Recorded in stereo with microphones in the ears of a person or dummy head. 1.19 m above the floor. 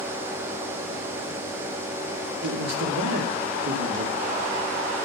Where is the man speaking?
80° right, 2.5 m.